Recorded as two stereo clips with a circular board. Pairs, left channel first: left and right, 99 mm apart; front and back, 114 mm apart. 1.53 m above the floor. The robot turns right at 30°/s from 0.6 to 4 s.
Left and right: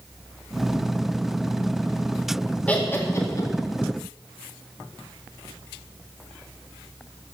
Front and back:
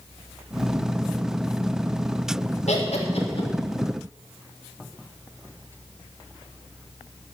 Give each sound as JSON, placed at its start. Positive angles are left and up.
{"t": 2.7, "sound": "laughter", "azimuth_deg": 15, "distance_m": 2.0}